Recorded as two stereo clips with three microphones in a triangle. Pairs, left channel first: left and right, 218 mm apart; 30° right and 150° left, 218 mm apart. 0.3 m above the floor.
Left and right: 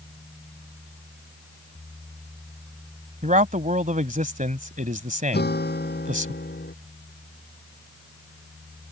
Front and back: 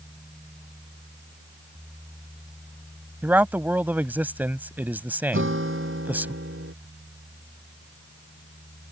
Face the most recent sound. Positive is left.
turn(degrees=130)